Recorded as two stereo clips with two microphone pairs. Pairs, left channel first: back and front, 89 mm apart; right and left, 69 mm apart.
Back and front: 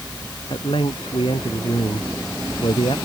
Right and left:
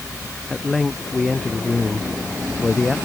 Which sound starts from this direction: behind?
A man speaking, at 0.5 s.